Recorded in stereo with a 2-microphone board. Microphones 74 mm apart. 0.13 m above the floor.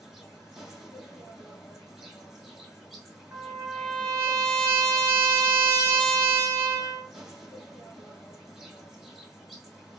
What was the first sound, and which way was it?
An insect, 5° right (ahead or behind).